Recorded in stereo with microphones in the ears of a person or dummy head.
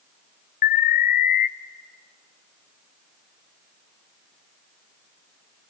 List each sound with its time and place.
0.6 s an alarm: 55° left (ahead or behind), 0.7 m